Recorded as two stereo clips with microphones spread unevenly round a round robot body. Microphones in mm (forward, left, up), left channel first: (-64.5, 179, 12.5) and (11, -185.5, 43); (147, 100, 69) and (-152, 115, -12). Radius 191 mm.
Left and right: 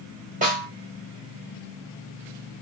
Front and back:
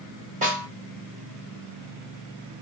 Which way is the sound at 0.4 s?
145° right.